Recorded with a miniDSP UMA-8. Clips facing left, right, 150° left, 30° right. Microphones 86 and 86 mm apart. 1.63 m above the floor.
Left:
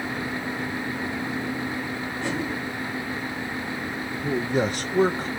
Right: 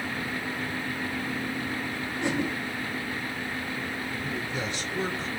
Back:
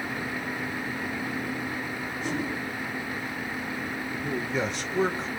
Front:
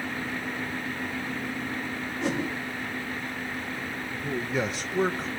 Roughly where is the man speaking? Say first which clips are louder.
Left 13 dB, front 1 dB; ahead left.